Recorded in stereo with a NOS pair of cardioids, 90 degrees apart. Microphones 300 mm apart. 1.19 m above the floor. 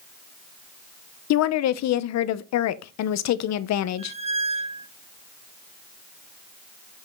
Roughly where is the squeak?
Ahead.